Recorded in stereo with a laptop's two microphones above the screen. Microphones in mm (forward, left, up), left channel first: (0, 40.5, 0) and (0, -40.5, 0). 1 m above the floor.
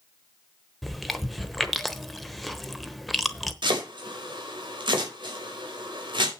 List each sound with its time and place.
0.8 s chewing: centre (ahead or behind), 0.9 m
3.6 s chopping: 75° right (ahead or behind), 4.5 m